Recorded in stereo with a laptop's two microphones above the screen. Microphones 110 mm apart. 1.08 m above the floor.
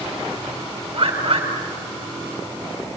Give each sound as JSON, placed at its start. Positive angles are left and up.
{"t": 0.9, "sound": "a bird", "side_deg": -60, "distance_m": 6.0}